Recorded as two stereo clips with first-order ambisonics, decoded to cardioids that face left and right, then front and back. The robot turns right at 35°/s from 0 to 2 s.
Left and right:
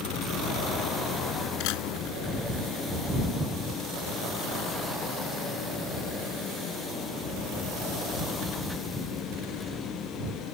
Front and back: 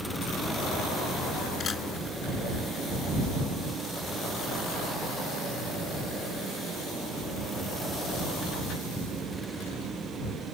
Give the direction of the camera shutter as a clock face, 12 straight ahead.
10 o'clock.